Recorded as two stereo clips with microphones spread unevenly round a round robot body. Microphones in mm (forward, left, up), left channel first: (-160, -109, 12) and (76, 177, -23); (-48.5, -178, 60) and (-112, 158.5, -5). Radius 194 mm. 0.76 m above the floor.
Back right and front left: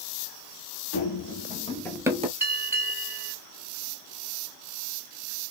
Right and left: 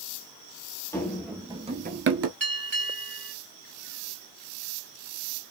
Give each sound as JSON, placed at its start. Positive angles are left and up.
{"t": 0.9, "sound": "running footsteps", "azimuth_deg": -150, "distance_m": 1.1}
{"t": 2.4, "sound": "a bell", "azimuth_deg": 135, "distance_m": 2.5}